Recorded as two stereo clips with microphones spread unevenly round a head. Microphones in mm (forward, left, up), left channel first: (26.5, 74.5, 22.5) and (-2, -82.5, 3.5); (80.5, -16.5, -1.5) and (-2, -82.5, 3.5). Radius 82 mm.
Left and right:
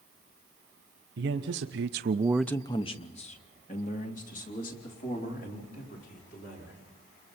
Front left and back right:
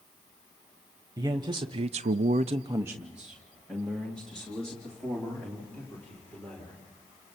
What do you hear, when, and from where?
1.2 s a man speaking: 80° right, 1.5 m; by 6.8 s 120° left, 6.5 m